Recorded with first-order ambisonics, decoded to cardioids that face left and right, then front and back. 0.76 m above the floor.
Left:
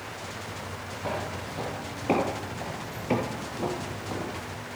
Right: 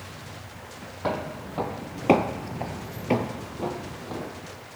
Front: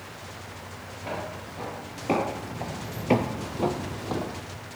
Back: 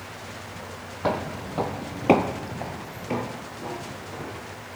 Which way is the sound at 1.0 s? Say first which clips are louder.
Right 3 dB, back 7 dB; 155° right.